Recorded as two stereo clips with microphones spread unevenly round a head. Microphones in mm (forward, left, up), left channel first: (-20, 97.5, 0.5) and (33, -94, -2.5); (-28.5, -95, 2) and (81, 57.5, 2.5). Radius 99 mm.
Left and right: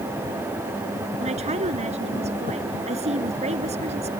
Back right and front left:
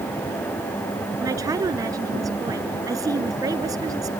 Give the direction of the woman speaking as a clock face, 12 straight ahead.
1 o'clock.